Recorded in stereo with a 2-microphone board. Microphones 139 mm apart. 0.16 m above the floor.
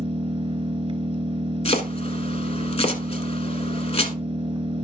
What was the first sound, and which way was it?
An engine running, 40° right (ahead or behind).